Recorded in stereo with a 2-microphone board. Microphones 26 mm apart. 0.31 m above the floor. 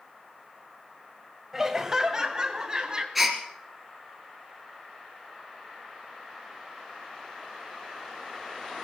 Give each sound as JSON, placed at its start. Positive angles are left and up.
{"t": 1.5, "sound": "laughter", "side_deg": -15, "distance_m": 1.5}
{"t": 3.1, "sound": "a gasp", "side_deg": -5, "distance_m": 2.0}